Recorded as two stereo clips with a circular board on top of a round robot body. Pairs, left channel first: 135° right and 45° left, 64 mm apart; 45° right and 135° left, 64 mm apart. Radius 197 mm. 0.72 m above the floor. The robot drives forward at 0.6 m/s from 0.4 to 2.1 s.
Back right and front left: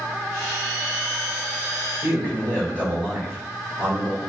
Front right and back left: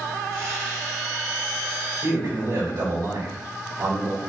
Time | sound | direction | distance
2.0 | a man speaking | 155° left | 4 m